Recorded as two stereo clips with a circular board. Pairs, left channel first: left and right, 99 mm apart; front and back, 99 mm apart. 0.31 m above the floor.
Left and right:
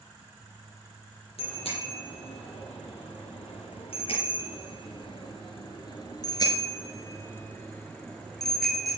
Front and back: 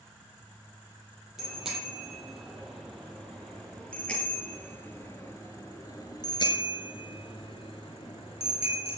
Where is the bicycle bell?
95° left, 7.5 m; by 9.0 s 5° right, 4.5 m.